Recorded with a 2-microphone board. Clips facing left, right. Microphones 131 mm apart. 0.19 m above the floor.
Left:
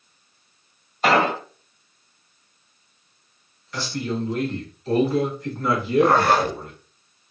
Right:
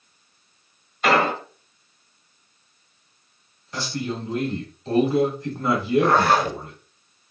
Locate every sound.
1.0 s an explosion: 35° left (ahead or behind), 1.5 m
3.7 s a man speaking: 30° right (ahead or behind), 1.6 m
6.0 s a zipper: 55° left (ahead or behind), 0.9 m